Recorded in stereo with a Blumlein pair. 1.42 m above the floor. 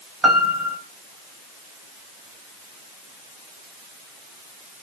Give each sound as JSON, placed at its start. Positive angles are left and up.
{"t": 0.2, "sound": "a piano", "azimuth_deg": -10, "distance_m": 3.0}